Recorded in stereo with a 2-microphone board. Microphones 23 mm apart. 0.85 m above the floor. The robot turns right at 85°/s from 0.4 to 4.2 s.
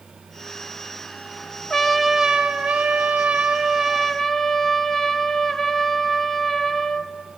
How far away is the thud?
No thud in this recording.